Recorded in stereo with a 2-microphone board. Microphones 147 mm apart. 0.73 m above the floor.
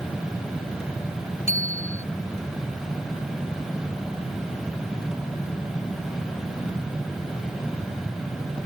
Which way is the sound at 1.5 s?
45° left (ahead or behind).